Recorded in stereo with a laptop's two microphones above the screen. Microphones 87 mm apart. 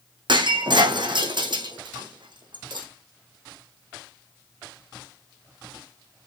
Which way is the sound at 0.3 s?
65° right (ahead or behind).